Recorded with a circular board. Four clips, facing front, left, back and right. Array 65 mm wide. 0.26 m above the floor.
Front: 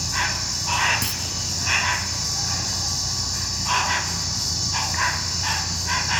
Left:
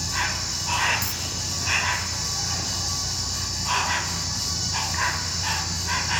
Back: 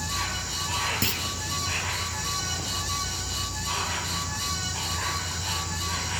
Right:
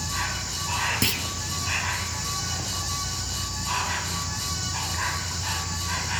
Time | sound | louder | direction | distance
0.0 | an insect | left 2 dB, front 5 dB | 20° left | 1.4 m
1.0 | a clunk | right 6 dB, back 1 dB | 100° right | 1.5 m